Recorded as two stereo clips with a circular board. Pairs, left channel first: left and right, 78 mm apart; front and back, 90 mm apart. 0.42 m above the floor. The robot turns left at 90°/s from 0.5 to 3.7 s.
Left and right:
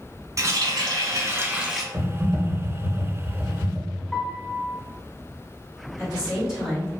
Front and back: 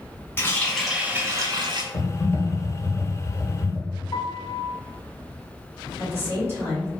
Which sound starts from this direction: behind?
A woman speaking, at 6.0 s.